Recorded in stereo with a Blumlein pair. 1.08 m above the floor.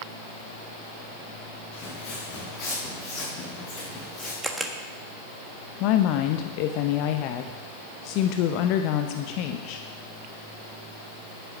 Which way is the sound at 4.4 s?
10° right.